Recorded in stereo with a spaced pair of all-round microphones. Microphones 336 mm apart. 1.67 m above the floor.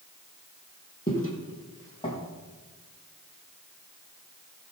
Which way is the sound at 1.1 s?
25° left (ahead or behind).